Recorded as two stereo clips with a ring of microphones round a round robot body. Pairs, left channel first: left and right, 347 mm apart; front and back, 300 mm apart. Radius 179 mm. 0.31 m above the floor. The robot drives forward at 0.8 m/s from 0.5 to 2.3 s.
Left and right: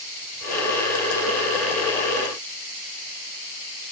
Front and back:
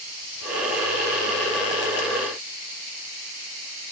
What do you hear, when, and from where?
Only background noise.